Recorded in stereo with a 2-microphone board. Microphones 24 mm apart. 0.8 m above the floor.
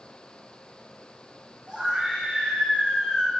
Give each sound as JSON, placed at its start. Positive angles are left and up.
{"t": 1.7, "sound": "a scream", "side_deg": -30, "distance_m": 5.0}